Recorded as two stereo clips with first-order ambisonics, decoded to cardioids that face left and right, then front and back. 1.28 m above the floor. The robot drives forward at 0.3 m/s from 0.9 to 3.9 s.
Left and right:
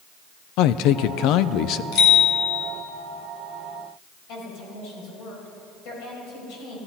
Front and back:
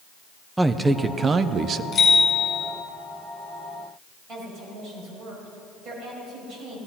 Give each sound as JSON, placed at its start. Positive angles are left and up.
{"t": 0.6, "sound": "a man speaking", "azimuth_deg": 100, "distance_m": 0.6}
{"t": 1.9, "sound": "a bicycle bell", "azimuth_deg": 65, "distance_m": 5.0}
{"t": 4.3, "sound": "a woman speaking", "azimuth_deg": 120, "distance_m": 6.0}